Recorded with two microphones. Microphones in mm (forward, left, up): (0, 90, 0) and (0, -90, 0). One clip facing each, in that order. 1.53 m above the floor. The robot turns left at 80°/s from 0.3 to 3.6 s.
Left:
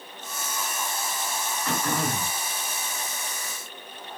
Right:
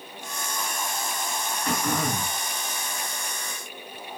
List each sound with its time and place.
1.6 s throat clearing: 155° right, 1.3 m; by 2.4 s 145° left, 1.3 m